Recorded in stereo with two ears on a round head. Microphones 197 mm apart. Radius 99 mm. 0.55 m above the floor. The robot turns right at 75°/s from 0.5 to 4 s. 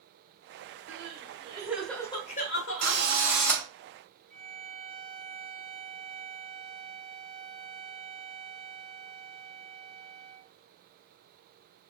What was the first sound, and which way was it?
Crying, 70° right.